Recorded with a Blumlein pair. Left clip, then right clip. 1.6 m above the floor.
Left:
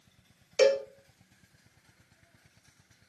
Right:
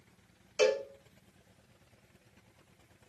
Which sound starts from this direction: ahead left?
A cowbell, at 0.6 s.